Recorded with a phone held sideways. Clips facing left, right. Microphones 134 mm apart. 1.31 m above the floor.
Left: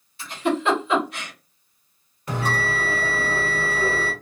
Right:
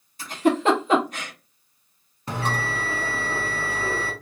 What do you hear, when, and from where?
0.2 s a giggle: 40° right (ahead or behind), 1.4 m
2.3 s a bell: 30° right (ahead or behind), 1.7 m